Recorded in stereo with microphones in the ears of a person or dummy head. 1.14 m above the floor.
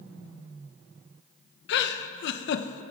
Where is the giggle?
70° left (ahead or behind), 0.7 m.